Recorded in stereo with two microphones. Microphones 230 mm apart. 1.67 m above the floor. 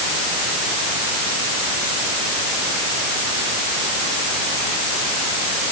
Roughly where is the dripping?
No dripping in this recording.